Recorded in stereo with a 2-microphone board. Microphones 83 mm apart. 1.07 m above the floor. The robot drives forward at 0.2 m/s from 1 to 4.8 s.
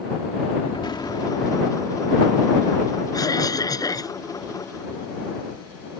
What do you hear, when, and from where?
0.7 s an explosion: 65° left (ahead or behind); by 2.4 s 60° left (ahead or behind)
3.1 s a cough: 45° left (ahead or behind)